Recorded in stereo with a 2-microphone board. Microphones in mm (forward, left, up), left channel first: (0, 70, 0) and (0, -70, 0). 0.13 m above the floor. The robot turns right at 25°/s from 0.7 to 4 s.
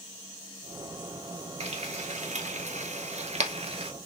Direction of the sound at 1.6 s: 50° right (ahead or behind).